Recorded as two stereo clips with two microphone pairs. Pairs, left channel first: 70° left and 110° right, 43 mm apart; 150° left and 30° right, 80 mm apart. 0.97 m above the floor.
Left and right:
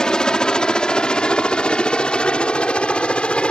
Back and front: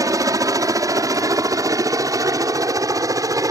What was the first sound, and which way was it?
A helicopter, 5° left.